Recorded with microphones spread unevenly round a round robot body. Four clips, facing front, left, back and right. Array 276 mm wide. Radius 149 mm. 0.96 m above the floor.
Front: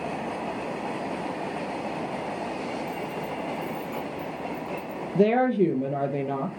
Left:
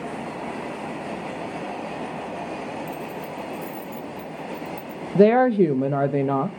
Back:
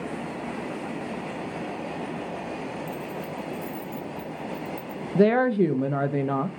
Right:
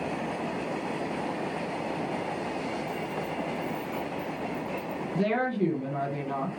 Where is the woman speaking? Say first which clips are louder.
Left 12 dB, back 1 dB; 115° left, 0.6 m.